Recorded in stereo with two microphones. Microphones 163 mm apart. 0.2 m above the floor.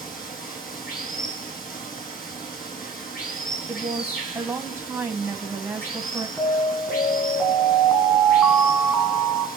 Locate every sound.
0.0 s running water: 60° left (ahead or behind), 3.5 m
3.7 s a woman speaking: 15° right (ahead or behind), 1.0 m
6.4 s an alarm: 10° left (ahead or behind), 2 m